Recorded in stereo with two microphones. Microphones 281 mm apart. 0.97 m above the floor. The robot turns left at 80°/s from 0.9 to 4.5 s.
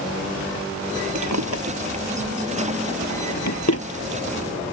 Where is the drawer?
85° right; by 3.9 s 50° left (ahead or behind).